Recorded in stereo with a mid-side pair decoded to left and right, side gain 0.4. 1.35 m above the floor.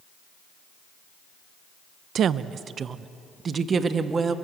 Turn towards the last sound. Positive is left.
turn(degrees=-45)